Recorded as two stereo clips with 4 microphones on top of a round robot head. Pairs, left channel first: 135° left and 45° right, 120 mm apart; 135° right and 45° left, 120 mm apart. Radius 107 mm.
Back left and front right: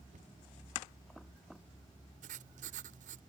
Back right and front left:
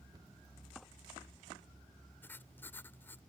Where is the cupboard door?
15° right.